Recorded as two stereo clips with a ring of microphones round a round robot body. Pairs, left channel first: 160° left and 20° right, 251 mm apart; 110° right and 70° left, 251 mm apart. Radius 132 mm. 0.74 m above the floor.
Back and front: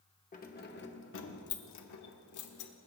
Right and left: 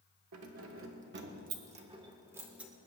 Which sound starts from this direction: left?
Keys jangling, at 0.3 s.